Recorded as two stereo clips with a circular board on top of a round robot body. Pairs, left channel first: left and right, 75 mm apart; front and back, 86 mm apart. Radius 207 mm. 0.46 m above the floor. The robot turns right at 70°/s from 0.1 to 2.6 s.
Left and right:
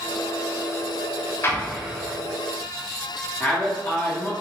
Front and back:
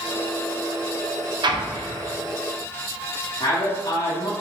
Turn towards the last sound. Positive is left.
turn(degrees=25)